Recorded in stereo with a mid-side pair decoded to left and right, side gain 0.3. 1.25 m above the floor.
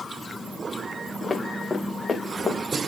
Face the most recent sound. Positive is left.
turn(degrees=35)